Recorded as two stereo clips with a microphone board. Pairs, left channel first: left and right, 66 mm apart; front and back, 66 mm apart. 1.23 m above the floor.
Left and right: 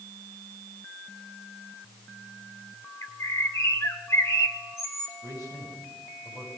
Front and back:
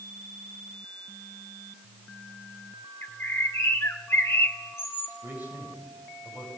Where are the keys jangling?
No keys jangling in this recording.